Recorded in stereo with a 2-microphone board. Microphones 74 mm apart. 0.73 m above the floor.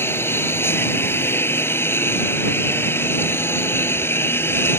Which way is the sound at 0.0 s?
30° left (ahead or behind).